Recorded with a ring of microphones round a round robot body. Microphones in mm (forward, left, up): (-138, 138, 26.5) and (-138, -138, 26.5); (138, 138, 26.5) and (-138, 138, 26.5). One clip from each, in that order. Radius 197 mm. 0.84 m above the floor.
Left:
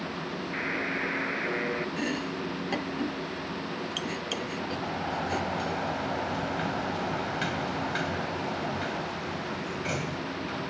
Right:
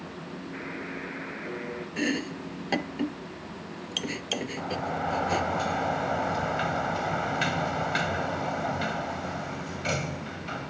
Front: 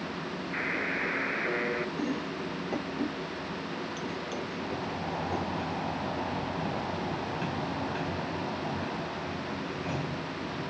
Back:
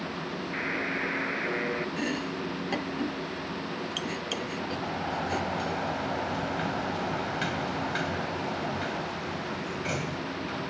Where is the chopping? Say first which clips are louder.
Right 1 dB, back 2 dB; 135° right.